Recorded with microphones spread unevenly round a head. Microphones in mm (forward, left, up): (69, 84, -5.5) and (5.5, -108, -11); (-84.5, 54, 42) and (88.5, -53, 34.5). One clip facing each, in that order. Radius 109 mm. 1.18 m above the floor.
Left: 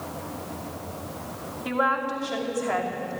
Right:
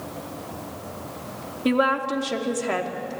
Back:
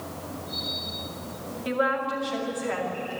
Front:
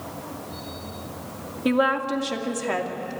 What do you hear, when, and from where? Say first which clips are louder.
1.6 s a woman speaking: right 6 dB, front 5 dB; 65° right, 2.5 m